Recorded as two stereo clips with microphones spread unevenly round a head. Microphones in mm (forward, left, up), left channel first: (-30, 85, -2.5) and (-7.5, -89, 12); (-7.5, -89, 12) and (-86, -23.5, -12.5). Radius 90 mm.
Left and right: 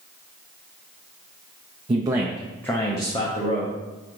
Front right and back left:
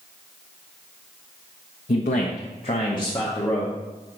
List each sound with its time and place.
1.9 s a man speaking: 20° right, 0.6 m; by 3.7 s 40° left, 1.3 m